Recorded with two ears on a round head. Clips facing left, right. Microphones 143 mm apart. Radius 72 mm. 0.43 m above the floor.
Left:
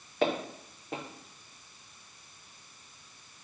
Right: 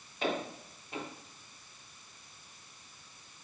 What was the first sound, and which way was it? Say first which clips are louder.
Footsteps: left 5 dB; 50° left (ahead or behind).